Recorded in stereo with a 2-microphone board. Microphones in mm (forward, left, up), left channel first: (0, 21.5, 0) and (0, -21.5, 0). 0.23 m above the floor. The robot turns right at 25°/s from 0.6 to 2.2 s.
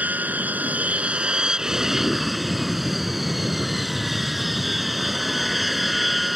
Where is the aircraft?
45° right; by 6.3 s 5° right.